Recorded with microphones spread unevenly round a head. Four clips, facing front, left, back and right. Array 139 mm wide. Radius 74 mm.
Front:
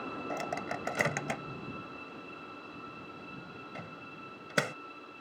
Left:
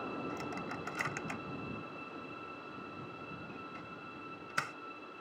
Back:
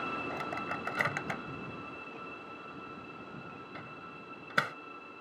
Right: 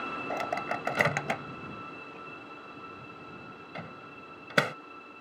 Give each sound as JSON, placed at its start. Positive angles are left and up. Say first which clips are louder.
{"t": 0.3, "sound": "a microwave", "louder": "right 9 dB, front 1 dB", "azimuth_deg": -75}